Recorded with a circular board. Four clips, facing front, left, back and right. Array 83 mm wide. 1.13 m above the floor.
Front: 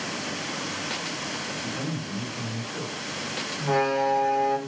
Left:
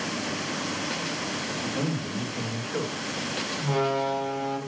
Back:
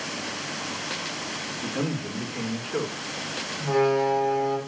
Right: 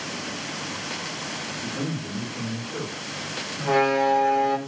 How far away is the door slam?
About 4.5 m.